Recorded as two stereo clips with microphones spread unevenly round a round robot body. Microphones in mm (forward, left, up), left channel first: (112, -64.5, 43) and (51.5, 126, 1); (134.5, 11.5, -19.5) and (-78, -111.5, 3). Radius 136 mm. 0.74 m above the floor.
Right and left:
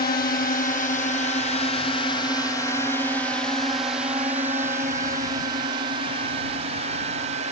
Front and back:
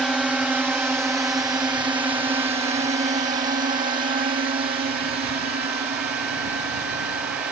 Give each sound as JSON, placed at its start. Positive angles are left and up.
{"t": 0.0, "sound": "a drone", "azimuth_deg": -60}